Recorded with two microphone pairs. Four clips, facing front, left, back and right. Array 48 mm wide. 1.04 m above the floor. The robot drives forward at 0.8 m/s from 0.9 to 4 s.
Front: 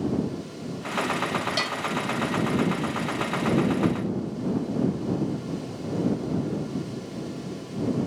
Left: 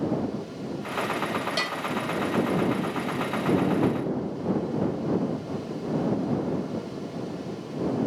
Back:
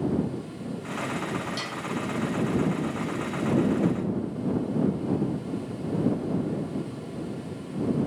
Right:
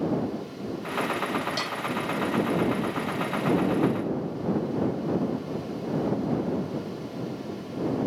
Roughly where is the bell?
Ahead left.